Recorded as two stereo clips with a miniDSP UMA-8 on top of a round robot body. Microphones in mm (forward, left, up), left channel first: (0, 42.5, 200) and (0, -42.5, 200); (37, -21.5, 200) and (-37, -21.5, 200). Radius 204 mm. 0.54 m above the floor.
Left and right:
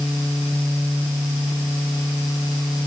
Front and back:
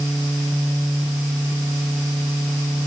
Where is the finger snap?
No finger snap in this recording.